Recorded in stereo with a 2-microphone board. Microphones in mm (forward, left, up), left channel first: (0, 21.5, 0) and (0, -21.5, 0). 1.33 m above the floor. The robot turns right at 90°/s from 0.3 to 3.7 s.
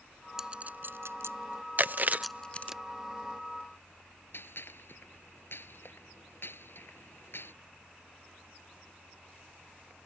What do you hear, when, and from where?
0.4 s a clink: 10° right (ahead or behind); by 2.8 s 45° left (ahead or behind)
1.8 s chewing: 45° right (ahead or behind); by 2.8 s 5° right (ahead or behind)
4.3 s a gunshot: 60° left (ahead or behind)